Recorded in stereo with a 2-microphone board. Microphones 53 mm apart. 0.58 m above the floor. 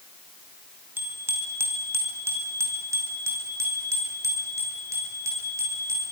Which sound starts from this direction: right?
A bicycle bell, at 1.0 s.